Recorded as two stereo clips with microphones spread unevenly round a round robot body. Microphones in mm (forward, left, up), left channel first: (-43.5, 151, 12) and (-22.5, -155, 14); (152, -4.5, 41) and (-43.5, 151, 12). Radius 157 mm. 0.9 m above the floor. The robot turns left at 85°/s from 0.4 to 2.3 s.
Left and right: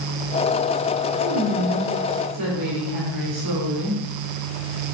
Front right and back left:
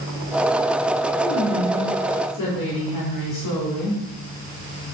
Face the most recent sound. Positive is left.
turn(degrees=-55)